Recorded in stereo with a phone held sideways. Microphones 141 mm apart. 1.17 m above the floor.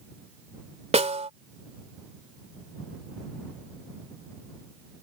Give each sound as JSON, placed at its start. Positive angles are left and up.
{"t": 0.9, "sound": "a snare drum", "side_deg": -50}